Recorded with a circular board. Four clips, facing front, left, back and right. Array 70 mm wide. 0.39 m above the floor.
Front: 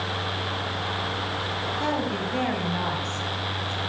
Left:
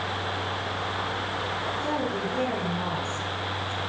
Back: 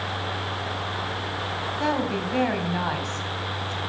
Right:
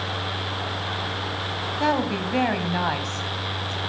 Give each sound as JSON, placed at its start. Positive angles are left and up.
{"t": 1.8, "sound": "a woman speaking", "azimuth_deg": -105, "distance_m": 3.0}